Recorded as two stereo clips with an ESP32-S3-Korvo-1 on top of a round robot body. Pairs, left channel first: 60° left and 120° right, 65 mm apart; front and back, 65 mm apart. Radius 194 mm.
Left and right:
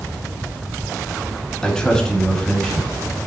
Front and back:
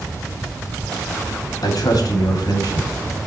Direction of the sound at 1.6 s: 20° right.